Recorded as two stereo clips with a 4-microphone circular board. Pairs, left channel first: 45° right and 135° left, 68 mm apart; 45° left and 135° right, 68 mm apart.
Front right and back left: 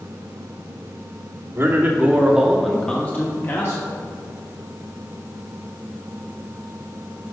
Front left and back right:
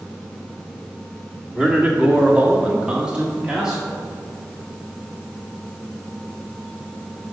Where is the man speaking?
165° left, 1.7 m; by 3.9 s 55° right, 1.7 m.